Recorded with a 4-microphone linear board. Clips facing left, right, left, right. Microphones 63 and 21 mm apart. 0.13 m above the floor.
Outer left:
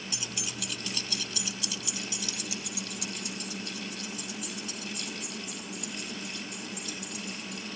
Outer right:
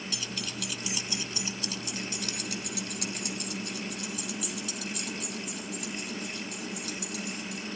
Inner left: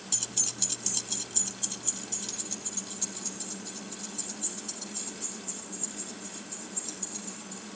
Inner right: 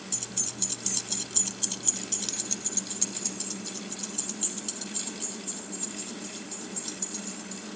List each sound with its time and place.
0.1 s keys jangling: 25° left (ahead or behind), 0.8 m; by 7.7 s 75° right (ahead or behind), 4 m